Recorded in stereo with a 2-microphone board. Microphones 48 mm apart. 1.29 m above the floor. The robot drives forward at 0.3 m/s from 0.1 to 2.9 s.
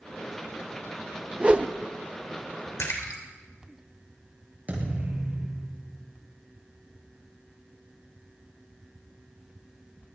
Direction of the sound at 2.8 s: 80° left.